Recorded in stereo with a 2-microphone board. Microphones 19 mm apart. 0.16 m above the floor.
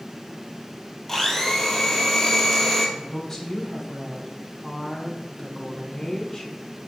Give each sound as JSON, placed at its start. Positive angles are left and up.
{"t": 1.1, "sound": "a blender", "side_deg": 10, "distance_m": 0.9}
{"t": 3.0, "sound": "a woman speaking", "side_deg": 25, "distance_m": 1.1}